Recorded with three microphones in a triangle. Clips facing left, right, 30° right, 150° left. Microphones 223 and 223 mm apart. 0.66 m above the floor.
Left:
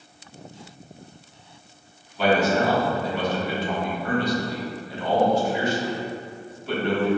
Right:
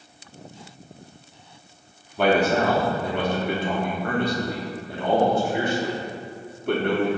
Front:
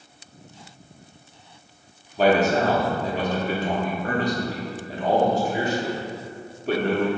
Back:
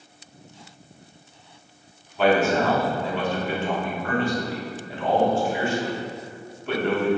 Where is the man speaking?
75° right, 1.2 m.